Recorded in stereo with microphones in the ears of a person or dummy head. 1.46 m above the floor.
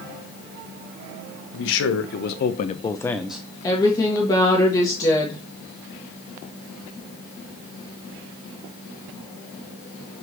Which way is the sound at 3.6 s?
25° left (ahead or behind).